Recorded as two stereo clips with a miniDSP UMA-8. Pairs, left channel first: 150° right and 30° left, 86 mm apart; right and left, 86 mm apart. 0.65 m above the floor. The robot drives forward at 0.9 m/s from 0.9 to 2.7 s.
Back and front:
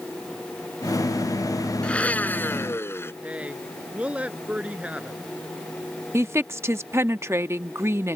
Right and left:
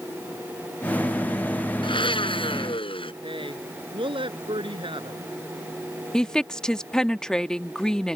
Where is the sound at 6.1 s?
10° right.